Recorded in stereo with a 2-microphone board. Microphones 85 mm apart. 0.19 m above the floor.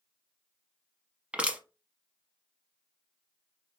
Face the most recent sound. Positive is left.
turn(degrees=-15)  # may be behind; listen again after turning